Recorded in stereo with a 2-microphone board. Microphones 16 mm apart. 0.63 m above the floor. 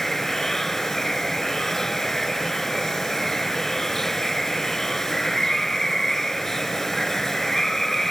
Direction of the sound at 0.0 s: 20° left (ahead or behind).